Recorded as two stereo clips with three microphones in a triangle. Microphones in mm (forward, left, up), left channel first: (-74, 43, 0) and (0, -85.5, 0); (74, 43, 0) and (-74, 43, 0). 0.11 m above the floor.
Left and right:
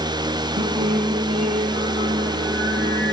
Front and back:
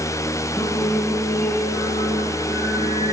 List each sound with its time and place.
0.6 s singing: 75° right, 4 m